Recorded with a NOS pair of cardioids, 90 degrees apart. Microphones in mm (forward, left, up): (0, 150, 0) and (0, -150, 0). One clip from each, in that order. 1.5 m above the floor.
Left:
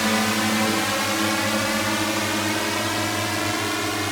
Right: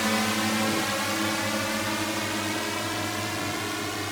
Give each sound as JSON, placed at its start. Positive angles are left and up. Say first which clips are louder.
{"t": 0.0, "sound": "a drone", "louder": "left 4 dB", "azimuth_deg": 30}